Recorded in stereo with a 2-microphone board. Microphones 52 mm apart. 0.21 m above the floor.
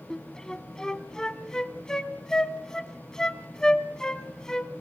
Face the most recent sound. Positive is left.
turn(degrees=15)  # may be behind; listen again after turning